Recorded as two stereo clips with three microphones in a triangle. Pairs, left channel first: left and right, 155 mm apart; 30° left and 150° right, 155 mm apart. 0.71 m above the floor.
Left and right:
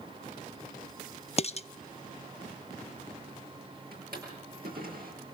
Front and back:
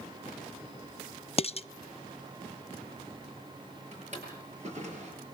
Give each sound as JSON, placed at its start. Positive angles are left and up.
{"t": 1.4, "sound": "dishes clattering", "azimuth_deg": 65, "distance_m": 0.6}
{"t": 3.9, "sound": "a drawer", "azimuth_deg": -105, "distance_m": 7.5}